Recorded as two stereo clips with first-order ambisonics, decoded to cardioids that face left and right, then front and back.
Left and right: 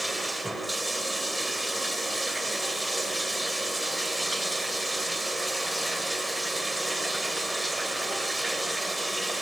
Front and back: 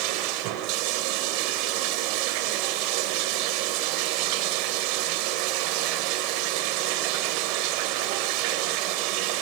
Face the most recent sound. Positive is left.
turn(degrees=-175)